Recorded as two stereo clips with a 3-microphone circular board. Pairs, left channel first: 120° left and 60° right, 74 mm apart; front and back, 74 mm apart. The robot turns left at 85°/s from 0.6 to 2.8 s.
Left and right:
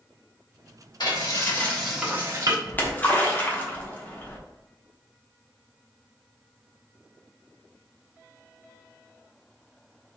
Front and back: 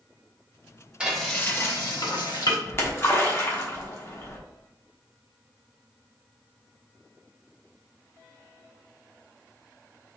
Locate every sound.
1.0 s frying: 105° left, 1.3 m; by 2.6 s 30° right, 1.3 m
2.7 s a splash: 65° left, 1.1 m; by 4.4 s 55° left, 1.1 m